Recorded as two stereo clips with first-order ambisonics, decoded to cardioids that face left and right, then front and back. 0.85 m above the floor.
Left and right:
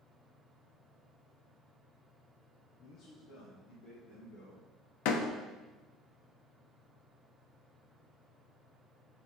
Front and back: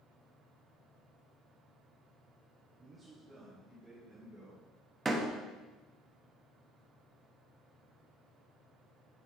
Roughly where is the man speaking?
Behind left.